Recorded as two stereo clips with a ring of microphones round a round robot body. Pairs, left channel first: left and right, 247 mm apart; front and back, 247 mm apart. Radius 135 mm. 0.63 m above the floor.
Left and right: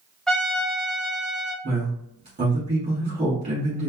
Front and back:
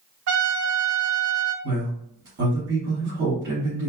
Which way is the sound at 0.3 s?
Straight behind.